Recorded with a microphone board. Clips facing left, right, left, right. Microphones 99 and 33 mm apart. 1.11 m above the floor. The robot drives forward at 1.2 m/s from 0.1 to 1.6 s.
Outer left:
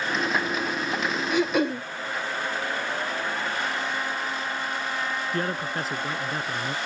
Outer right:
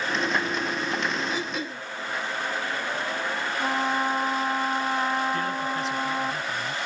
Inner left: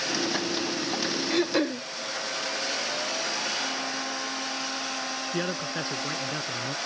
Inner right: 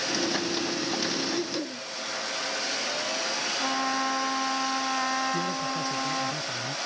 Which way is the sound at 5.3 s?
45° left (ahead or behind).